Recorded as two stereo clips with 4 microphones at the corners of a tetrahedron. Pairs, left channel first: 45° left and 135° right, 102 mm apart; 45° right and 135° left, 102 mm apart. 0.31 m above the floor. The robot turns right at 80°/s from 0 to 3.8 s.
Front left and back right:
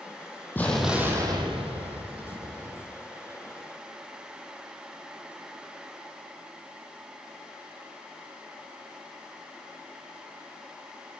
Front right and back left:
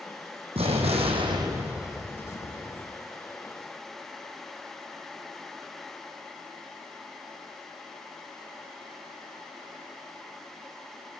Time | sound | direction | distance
0.6 | an explosion | 115° left | 2 m